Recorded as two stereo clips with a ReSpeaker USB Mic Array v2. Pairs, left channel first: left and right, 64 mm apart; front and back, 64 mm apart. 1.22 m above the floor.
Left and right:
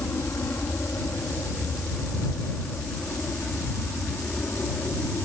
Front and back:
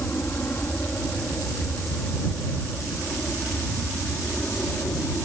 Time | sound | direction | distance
0.0 | an aircraft | 50° left | ?